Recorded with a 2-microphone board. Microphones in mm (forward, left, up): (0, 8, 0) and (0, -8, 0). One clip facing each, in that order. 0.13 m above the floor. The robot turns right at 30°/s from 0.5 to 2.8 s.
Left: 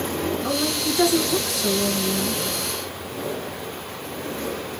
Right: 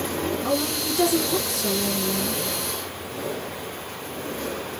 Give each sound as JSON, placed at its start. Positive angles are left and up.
{"t": 0.4, "sound": "a woman speaking", "azimuth_deg": 45, "distance_m": 1.9}